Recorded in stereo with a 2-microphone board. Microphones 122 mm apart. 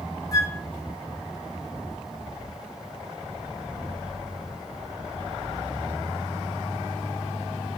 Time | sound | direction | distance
0.3 | a flute | 30° left (ahead or behind) | 0.7 m